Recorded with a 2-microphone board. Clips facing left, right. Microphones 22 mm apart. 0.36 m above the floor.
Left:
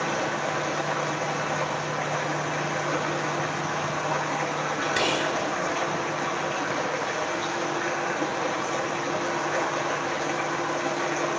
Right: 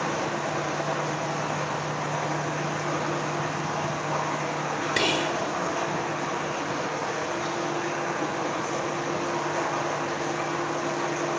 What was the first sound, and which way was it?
Running water, 50° left (ahead or behind).